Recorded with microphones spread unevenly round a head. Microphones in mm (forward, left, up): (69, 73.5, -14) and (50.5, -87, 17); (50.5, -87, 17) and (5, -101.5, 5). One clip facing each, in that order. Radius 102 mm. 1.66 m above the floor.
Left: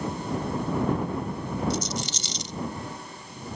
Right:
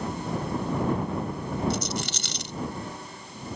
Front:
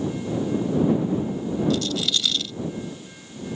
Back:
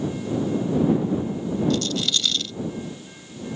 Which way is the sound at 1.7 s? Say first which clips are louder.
Even, even; 70° right.